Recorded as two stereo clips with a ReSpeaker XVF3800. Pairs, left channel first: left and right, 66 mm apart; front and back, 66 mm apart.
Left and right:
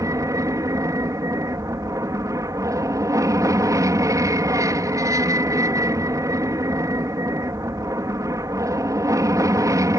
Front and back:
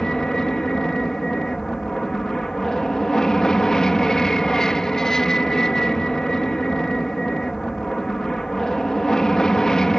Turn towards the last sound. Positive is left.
turn(degrees=-80)